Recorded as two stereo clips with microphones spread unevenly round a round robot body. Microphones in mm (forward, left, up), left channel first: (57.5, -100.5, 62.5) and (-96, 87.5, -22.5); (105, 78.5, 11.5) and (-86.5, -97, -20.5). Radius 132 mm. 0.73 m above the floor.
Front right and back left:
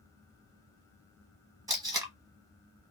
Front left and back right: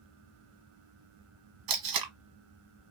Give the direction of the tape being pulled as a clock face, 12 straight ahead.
5 o'clock.